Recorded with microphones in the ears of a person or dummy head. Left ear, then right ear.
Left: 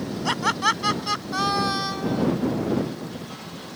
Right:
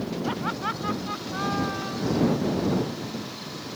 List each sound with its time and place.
0.2 s laughter: 85° left; by 2.3 s 80° left